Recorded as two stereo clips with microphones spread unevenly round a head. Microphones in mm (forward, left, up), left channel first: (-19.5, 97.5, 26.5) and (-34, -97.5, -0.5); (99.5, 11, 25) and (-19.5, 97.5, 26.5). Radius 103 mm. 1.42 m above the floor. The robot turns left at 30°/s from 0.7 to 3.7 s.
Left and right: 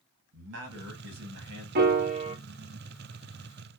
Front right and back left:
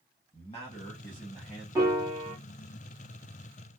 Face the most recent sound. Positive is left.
turn(degrees=165)